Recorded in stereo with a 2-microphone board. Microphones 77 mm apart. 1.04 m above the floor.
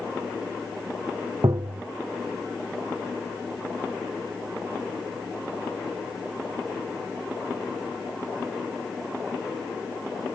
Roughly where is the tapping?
Right.